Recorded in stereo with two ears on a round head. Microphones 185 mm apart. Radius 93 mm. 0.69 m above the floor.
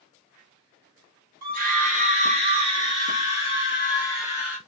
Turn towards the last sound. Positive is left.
turn(degrees=0)  # may be behind; listen again after turning